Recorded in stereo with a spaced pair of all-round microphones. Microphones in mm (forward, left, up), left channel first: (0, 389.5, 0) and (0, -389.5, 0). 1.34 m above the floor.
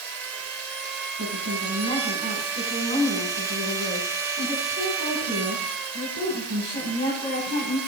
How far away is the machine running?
About 0.9 m.